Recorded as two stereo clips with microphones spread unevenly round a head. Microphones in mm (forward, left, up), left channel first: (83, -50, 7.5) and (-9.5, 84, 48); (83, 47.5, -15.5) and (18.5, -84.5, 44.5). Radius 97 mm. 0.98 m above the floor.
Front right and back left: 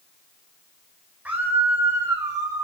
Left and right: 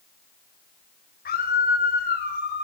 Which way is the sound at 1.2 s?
45° left.